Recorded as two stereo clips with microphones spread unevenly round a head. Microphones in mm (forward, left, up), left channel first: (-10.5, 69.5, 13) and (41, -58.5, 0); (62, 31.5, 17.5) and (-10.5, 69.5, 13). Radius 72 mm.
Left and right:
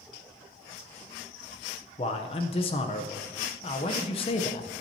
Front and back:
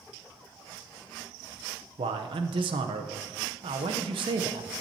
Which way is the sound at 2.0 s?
165° left.